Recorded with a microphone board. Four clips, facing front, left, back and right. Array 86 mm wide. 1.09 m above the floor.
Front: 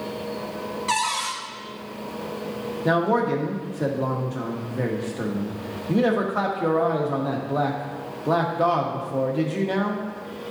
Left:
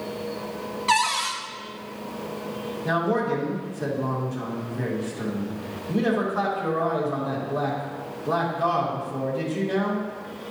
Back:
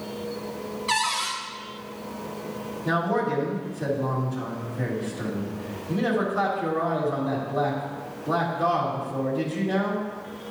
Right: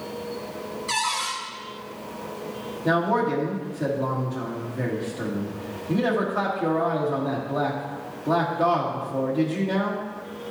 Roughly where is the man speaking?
Ahead.